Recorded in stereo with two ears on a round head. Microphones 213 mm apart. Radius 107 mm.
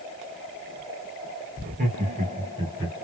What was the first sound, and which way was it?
Laughter, 35° right (ahead or behind).